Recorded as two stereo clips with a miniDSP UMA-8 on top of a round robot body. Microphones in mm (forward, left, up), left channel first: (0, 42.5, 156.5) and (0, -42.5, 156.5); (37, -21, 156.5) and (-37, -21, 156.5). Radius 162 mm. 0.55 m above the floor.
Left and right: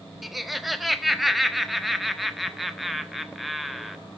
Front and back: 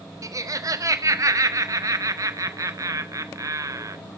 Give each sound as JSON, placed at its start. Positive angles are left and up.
{"t": 0.2, "sound": "laughter", "azimuth_deg": 180, "distance_m": 1.5}